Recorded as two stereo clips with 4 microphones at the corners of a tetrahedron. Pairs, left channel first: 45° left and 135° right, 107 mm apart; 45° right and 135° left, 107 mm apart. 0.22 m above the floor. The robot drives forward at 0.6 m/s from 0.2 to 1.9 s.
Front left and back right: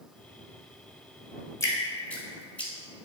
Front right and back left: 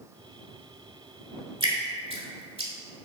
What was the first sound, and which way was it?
Dripping, 105° left.